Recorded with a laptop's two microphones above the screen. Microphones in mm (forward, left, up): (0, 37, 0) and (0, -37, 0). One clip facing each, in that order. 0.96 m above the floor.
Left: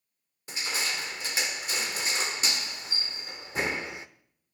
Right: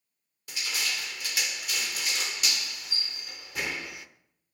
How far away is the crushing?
About 0.6 m.